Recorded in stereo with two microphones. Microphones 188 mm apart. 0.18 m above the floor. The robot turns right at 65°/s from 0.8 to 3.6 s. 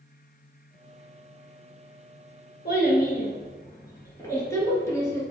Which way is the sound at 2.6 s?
60° left (ahead or behind).